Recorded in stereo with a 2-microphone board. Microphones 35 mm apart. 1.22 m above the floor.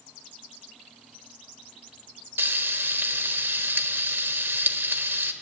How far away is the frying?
About 1.1 m.